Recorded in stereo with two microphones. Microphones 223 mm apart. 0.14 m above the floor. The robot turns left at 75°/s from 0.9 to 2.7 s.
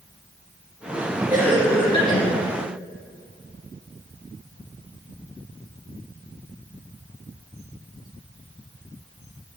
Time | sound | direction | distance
1.3 | a cough | 155° right | 2.5 m